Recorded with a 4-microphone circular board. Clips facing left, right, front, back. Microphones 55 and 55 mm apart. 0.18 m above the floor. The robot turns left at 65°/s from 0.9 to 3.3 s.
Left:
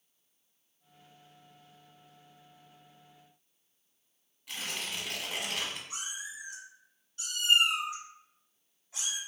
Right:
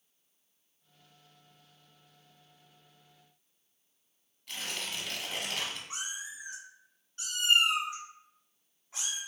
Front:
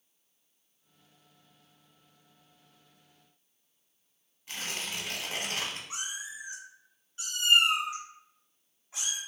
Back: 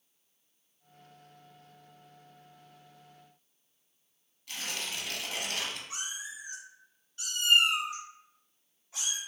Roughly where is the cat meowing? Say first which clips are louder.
Right 1 dB, front 1 dB; ahead right.